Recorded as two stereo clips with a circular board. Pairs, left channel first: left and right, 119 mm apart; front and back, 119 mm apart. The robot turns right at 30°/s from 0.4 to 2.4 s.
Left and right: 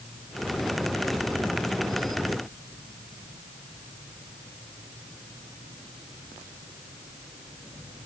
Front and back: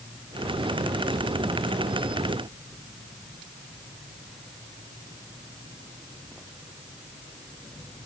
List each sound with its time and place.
Only background noise.